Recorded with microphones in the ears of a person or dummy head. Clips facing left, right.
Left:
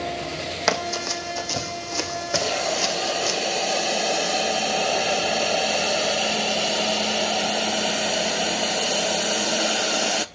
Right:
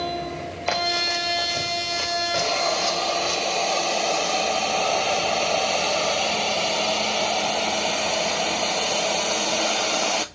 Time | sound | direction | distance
0.7 | running footsteps | 75° left (ahead or behind) | 4 m
2.4 | a hiss | 10° left (ahead or behind) | 0.5 m